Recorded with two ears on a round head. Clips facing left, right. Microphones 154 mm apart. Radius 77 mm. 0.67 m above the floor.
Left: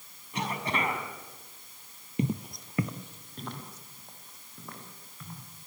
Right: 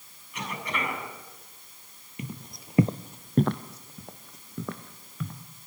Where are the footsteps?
30° left (ahead or behind), 0.7 m; by 5.4 s 60° right (ahead or behind), 3.5 m.